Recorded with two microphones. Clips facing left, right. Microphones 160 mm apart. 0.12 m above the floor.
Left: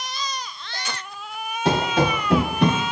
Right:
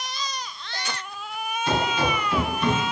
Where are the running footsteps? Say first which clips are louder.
Left 4 dB; 80° left, 3 m; by 2.8 s 70° left (ahead or behind), 2.5 m.